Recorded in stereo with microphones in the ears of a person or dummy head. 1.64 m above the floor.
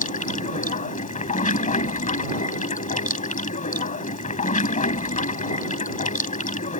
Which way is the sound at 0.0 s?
35° left (ahead or behind).